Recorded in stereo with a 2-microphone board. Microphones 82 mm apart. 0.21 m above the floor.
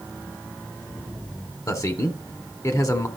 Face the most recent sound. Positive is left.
turn(degrees=40)  # may be behind; listen again after turning